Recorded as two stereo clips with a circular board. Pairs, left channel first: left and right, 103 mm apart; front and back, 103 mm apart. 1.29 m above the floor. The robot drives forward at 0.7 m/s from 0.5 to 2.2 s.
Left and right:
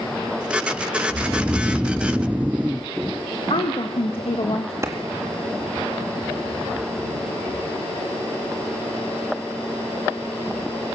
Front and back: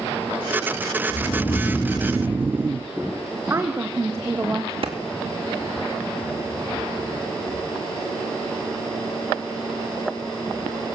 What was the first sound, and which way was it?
Snoring, 10° right.